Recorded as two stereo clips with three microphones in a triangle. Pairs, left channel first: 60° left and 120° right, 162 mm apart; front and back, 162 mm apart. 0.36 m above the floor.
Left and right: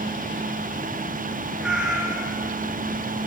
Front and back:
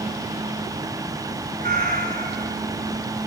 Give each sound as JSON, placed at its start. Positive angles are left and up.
{"t": 1.6, "sound": "a cat meowing", "azimuth_deg": 155, "distance_m": 1.8}